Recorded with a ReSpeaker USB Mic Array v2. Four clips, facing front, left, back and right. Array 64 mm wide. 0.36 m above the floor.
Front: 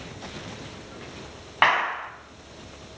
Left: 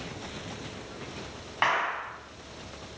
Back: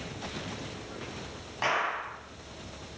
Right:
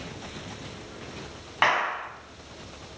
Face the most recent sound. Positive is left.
turn(degrees=-10)